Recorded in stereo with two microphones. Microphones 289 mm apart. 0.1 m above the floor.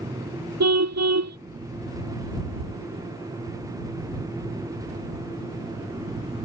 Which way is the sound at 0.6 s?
65° right (ahead or behind).